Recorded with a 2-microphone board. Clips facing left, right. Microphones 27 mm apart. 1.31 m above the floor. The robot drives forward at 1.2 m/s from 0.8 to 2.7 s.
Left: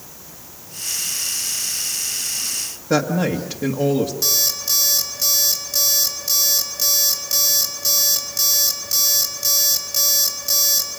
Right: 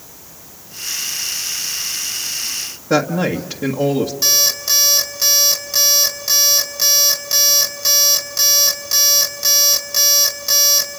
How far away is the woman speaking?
About 1.5 m.